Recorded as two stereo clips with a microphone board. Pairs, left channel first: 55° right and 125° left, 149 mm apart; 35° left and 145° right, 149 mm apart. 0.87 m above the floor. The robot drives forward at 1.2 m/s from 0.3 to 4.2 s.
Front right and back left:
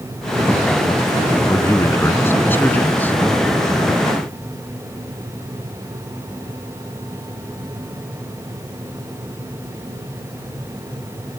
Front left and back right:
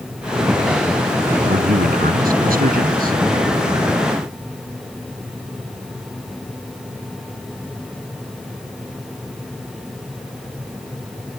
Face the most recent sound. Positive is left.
turn(degrees=-140)